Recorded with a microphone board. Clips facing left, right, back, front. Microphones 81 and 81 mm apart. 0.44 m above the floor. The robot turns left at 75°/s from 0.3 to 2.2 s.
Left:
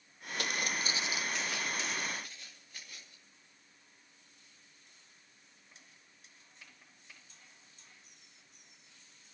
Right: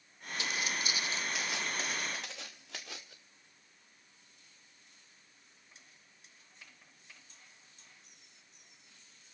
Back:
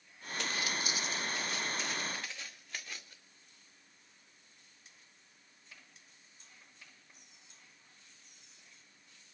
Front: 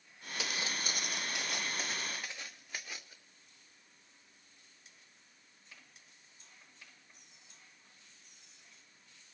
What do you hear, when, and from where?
0.4 s footsteps: 85° left, 0.6 m; by 3.2 s 75° right, 2.0 m